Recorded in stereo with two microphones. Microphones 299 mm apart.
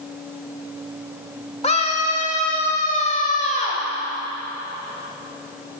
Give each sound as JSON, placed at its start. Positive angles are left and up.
{"t": 1.6, "sound": "a scream", "side_deg": 20, "distance_m": 1.5}